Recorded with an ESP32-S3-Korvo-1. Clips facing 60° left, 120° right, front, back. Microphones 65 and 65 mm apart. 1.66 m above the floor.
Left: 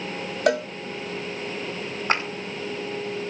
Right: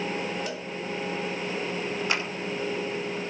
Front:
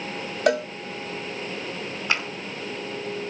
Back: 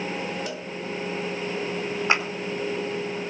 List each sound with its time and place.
0.5 s a cowbell: 30° left, 0.6 m
2.1 s a clap: 115° left, 4.5 m